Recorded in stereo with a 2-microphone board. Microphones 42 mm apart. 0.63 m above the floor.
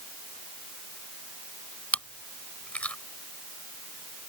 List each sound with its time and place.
1.9 s chewing: 35° left (ahead or behind)